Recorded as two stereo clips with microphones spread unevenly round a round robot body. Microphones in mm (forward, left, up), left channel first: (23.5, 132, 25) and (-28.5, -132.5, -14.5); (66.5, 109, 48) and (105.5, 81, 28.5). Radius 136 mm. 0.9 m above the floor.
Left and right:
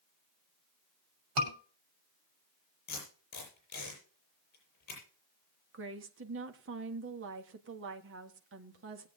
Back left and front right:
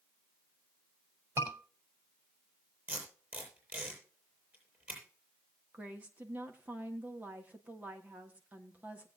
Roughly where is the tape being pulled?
Ahead left.